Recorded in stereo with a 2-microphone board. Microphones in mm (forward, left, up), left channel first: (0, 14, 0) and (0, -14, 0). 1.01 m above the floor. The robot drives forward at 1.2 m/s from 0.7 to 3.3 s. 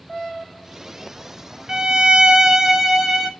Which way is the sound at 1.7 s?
20° right (ahead or behind).